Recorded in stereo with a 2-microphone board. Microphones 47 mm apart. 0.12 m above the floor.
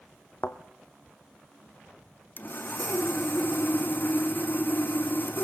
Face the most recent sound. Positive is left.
turn(degrees=45)  # may be behind; listen again after turning